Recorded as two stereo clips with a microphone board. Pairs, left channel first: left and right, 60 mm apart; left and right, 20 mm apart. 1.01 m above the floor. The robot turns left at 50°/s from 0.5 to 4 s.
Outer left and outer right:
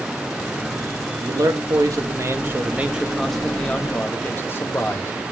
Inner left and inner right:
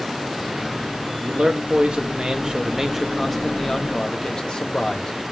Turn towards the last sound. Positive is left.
turn(degrees=145)